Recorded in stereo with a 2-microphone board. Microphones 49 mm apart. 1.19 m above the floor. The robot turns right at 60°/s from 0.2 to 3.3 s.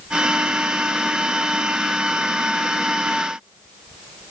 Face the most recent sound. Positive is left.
No sound to turn to.